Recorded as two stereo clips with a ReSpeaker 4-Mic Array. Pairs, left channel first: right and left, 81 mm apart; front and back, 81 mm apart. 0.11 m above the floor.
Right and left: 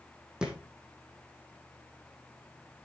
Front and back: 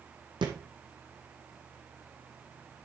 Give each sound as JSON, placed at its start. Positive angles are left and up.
{"t": 0.4, "sound": "a thud", "azimuth_deg": 170, "distance_m": 1.7}